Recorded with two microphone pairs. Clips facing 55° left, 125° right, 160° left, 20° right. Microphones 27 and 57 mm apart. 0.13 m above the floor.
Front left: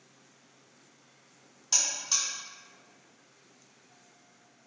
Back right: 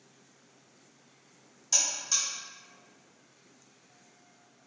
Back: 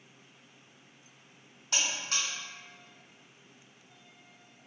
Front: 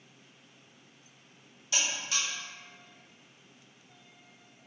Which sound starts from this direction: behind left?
A buzzer, at 1.7 s.